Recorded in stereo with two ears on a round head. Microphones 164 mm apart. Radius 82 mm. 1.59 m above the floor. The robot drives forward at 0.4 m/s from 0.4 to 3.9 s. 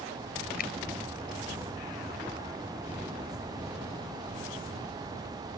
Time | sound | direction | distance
0.6 | a finger snap | 55° left (ahead or behind) | ?